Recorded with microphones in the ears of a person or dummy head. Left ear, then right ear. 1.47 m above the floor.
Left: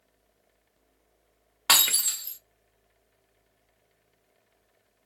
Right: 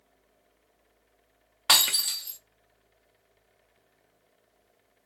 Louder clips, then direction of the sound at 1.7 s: Right 1 dB; 5° left (ahead or behind).